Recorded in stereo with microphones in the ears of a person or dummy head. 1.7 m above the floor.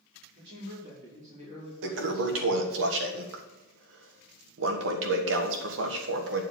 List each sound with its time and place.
0.3 s a man speaking: 60° right (ahead or behind), 5 m; by 2.8 s 10° right (ahead or behind), 3 m
1.8 s a toilet flushing: 75° right (ahead or behind), 1.5 m